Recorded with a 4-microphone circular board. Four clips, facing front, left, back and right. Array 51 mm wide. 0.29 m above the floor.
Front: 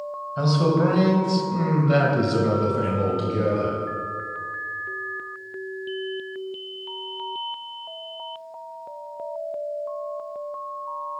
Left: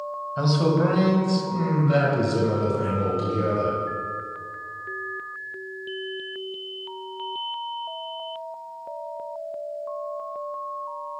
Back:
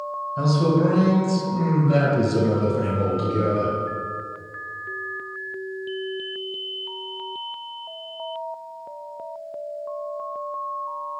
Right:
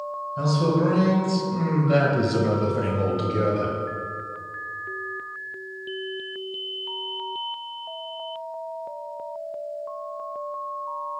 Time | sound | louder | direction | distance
0.4 | a man speaking | left 1 dB, even | 50° left | 1.3 m